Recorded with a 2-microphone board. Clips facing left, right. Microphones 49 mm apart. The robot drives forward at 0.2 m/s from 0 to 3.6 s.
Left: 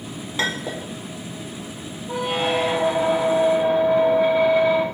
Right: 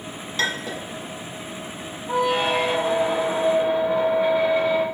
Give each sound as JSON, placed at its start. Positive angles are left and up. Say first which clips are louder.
{"t": 0.4, "sound": "a clink", "louder": "even", "side_deg": 15, "distance_m": 0.6}
{"t": 2.1, "sound": "a squeak", "louder": "right 2 dB", "side_deg": -15, "distance_m": 1.7}